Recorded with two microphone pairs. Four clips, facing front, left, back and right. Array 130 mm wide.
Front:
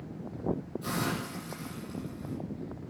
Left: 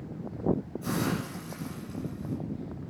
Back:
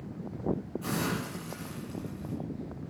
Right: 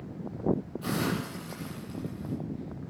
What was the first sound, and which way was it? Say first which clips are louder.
A hiss: even, even; 115° right.